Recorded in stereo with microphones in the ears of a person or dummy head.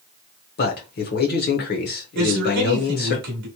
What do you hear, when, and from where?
0.6 s a man speaking: 55° left (ahead or behind), 1.0 m
2.1 s a man speaking: 55° right (ahead or behind), 1.2 m